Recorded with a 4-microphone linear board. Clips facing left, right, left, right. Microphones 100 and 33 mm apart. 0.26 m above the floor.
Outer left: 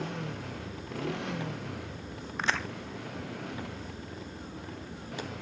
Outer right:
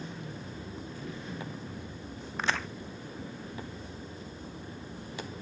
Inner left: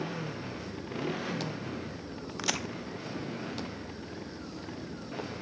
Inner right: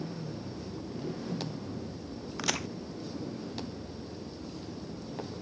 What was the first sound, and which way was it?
A motorcycle, 75° left (ahead or behind).